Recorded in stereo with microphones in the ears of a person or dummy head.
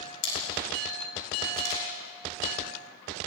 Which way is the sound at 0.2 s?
60° left (ahead or behind).